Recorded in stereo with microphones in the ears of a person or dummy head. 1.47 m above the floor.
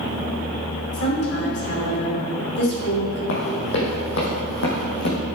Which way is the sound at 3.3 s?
60° left (ahead or behind).